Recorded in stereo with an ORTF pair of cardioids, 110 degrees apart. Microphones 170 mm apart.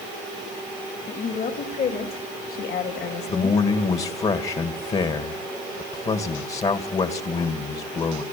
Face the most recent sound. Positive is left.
turn(degrees=40)